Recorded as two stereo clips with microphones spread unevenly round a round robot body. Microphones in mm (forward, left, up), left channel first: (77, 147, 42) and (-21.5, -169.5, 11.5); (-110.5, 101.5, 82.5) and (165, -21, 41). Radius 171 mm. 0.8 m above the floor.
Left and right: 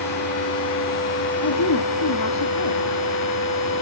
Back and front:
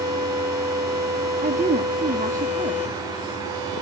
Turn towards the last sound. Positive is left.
turn(degrees=35)